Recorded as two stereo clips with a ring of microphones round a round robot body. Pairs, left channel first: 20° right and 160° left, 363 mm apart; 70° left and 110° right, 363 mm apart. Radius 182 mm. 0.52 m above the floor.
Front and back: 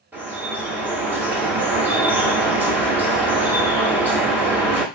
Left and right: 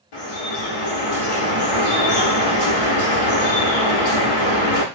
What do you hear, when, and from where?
0.1 s dripping: 70° left, 1.2 m